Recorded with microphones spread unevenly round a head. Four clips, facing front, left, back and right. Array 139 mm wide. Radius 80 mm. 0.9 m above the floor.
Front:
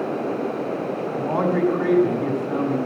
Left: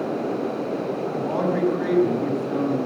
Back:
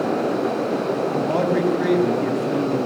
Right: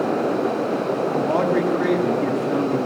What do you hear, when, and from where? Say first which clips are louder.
1.1 s a man speaking: right 4 dB, even; 145° right, 7 m